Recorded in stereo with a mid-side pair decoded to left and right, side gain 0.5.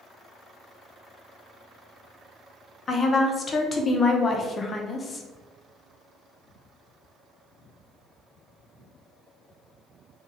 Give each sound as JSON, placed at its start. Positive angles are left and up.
{"t": 2.9, "sound": "a woman speaking", "azimuth_deg": 35, "distance_m": 0.8}